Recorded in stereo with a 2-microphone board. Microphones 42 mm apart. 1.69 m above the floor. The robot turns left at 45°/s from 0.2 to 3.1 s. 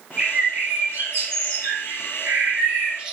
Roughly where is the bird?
Ahead right.